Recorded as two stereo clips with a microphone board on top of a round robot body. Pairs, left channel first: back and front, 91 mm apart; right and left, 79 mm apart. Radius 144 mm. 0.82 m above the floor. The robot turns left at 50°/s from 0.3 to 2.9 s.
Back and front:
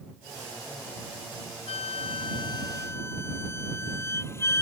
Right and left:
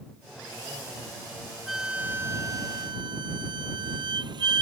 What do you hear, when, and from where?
1.7 s a flute: straight behind; by 4.6 s 115° left